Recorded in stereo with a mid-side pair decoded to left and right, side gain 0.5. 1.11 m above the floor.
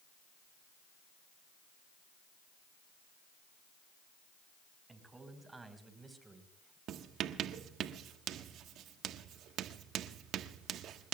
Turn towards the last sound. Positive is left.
turn(degrees=-70)